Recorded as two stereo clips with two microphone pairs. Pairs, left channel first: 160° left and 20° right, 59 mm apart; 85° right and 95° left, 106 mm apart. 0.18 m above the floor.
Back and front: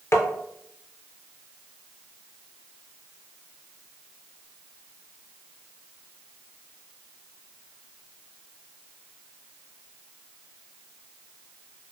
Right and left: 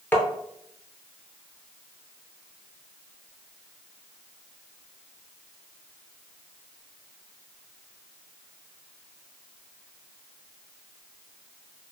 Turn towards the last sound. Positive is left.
turn(degrees=-160)